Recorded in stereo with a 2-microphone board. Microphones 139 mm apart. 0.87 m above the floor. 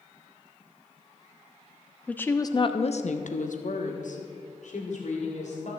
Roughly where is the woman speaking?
Centre.